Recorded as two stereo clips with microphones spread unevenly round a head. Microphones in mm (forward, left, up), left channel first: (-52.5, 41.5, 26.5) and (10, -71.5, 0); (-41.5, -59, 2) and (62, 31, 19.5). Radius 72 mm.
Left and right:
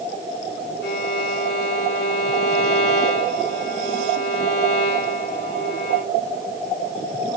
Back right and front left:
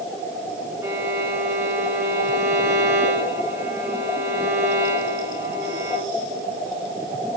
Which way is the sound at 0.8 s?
115° left.